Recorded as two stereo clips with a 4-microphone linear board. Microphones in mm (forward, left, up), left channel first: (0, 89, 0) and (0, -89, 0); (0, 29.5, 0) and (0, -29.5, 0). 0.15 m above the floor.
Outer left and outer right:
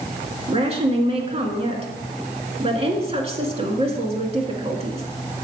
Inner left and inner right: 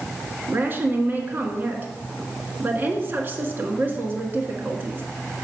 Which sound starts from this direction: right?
A woman speaking, at 0.5 s.